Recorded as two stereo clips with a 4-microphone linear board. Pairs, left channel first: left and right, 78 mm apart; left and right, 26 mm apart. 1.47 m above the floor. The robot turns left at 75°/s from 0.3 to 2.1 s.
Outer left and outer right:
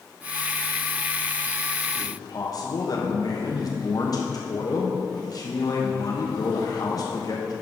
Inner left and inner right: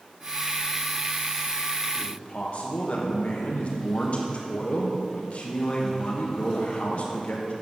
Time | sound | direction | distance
1.9 | a man speaking | 65° left (ahead or behind) | 1.0 m